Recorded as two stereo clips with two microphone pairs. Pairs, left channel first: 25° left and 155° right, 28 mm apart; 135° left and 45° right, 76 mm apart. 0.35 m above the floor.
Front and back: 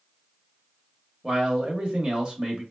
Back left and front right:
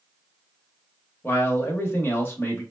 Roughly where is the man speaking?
Behind.